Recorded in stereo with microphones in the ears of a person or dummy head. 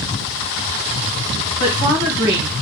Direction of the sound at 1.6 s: 80° right.